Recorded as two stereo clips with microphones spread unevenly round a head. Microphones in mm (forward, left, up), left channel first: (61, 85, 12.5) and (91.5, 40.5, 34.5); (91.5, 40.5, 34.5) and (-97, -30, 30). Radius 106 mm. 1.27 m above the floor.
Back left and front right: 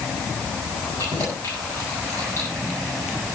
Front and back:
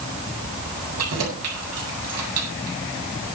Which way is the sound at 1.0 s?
165° right.